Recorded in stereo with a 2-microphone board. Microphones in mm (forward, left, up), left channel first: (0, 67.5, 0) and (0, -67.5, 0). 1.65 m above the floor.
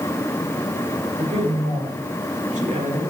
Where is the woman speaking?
60° right (ahead or behind), 6.5 m; by 3.1 s 70° right (ahead or behind), 5.5 m.